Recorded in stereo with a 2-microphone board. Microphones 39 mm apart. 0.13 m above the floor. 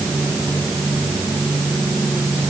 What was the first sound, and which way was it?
Only background noise.